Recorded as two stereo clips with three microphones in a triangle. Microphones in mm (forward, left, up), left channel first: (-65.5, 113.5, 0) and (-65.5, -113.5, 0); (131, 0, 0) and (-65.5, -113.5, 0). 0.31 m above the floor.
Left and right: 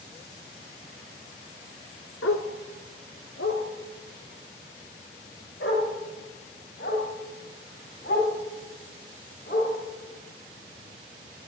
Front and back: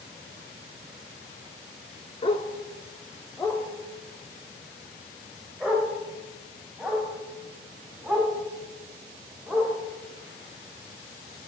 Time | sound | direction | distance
2.2 | a dog barking | 95° left | 1.0 m